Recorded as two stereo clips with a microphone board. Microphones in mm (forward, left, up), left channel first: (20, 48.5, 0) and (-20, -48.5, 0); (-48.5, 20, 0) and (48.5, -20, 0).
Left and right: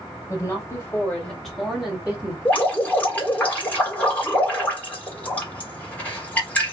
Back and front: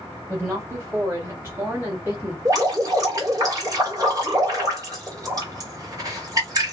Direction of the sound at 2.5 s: Straight ahead.